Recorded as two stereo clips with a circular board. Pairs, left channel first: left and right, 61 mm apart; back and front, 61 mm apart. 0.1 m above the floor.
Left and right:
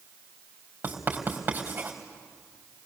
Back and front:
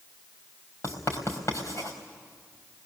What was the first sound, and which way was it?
Writing, 150° right.